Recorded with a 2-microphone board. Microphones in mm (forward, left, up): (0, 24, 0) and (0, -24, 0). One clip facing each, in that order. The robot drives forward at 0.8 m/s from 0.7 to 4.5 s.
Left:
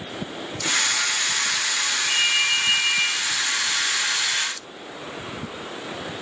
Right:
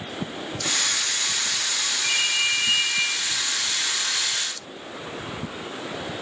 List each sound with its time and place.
2.0 s a ringtone: 5° right (ahead or behind), 2.5 m